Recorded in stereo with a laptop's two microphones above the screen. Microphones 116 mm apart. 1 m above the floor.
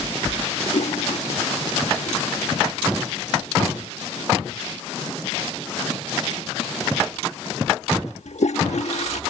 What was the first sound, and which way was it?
A toilet flushing, 80° left.